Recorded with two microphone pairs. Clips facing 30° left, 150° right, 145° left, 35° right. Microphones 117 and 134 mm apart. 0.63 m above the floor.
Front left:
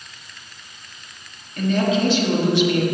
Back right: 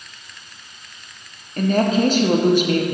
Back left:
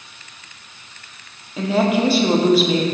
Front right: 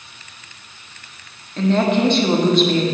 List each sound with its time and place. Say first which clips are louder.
1.6 s a woman speaking: back right 2 dB, front right 1 dB; 130° right, 0.7 m